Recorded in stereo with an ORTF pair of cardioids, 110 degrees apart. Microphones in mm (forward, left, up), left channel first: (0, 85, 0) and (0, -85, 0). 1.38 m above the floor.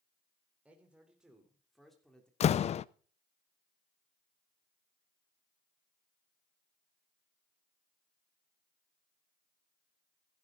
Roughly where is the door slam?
Ahead left.